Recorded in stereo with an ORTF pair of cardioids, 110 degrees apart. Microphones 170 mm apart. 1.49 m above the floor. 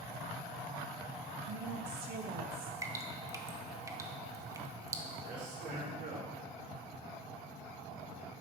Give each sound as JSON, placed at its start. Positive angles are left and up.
{"t": 1.5, "sound": "a woman speaking", "azimuth_deg": -70, "distance_m": 1.2}
{"t": 2.8, "sound": "dripping", "azimuth_deg": -15, "distance_m": 1.0}
{"t": 5.2, "sound": "a man speaking", "azimuth_deg": -55, "distance_m": 5.0}